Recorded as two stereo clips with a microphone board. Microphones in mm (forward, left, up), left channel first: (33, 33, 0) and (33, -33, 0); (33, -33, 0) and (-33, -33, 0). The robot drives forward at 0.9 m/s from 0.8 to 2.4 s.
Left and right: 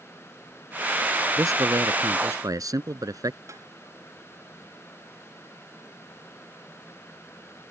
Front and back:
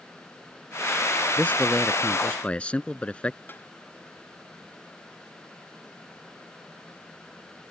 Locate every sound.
1.4 s a man speaking: 70° right
3.5 s tapping: 55° right